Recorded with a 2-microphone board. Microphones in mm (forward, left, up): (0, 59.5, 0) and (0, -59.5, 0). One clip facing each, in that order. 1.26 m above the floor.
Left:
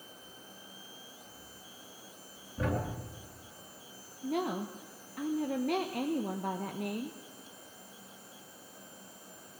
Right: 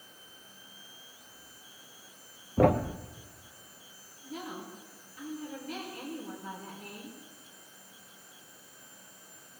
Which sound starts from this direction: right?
A thud, at 2.6 s.